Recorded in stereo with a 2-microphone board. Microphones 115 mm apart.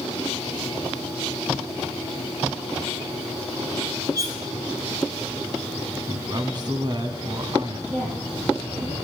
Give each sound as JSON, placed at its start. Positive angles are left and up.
{"t": 4.2, "sound": "cutlery clinking", "side_deg": -30, "distance_m": 1.8}
{"t": 6.1, "sound": "a man speaking", "side_deg": -40, "distance_m": 1.3}
{"t": 7.9, "sound": "a woman speaking", "side_deg": -75, "distance_m": 5.5}